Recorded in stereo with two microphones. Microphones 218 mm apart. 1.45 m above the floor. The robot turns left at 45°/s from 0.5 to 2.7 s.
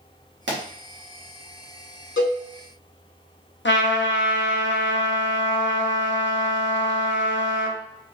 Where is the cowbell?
80° left, 1.1 m; by 2.4 s 85° left, 1.1 m.